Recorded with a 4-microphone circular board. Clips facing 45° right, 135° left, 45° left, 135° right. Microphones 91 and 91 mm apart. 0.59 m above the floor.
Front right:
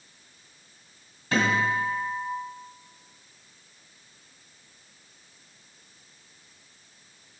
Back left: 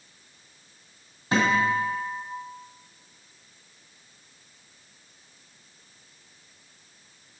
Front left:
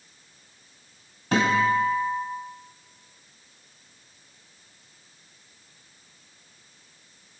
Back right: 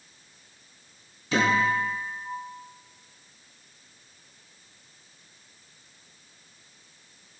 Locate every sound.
1.3 s a guitar: 60° left, 2 m